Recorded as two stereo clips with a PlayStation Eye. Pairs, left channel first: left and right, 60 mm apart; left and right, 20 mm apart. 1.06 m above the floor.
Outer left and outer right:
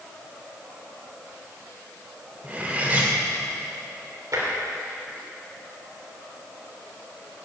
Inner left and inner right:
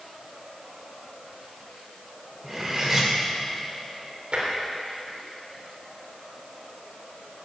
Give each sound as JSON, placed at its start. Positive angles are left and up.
{"t": 2.4, "sound": "cutlery clinking", "side_deg": -25, "distance_m": 2.0}
{"t": 4.3, "sound": "tapping", "side_deg": -65, "distance_m": 3.0}